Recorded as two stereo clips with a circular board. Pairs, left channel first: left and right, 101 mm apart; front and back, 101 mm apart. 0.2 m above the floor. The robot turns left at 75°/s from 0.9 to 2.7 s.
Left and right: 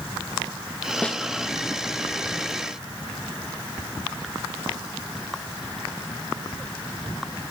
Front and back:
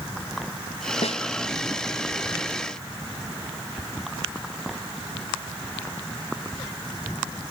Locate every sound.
1.0 s a snare drum: 15° left; by 1.2 s straight ahead